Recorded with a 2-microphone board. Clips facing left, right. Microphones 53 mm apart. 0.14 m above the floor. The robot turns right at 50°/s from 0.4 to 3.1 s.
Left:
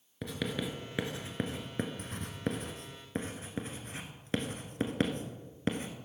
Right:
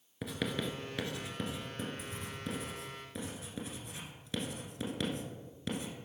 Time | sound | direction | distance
0.2 | writing | 5° right (ahead or behind) | 1.3 m